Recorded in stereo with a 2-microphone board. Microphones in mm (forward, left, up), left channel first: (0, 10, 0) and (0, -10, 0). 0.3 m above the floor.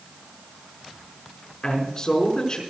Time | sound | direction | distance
1.6 | a man speaking | 40° left (ahead or behind) | 4.5 m